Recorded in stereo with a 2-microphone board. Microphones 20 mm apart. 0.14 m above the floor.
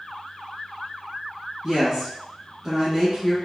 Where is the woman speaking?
20° right (ahead or behind), 1.3 m.